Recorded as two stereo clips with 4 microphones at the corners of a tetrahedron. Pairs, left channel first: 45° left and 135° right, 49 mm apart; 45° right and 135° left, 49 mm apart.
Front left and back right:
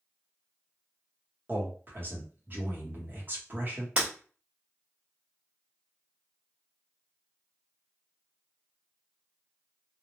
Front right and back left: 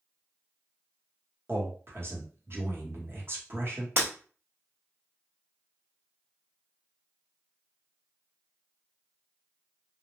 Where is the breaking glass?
165° left, 1.4 m.